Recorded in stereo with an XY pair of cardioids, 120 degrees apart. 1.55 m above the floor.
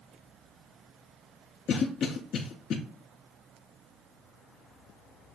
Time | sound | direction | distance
1.7 | a cough | 55° left | 0.5 m